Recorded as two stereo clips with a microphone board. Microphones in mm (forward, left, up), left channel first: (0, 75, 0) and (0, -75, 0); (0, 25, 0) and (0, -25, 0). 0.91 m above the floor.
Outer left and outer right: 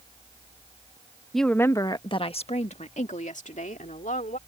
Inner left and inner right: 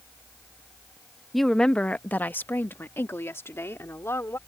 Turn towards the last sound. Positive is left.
turn(degrees=65)  # may be behind; listen again after turning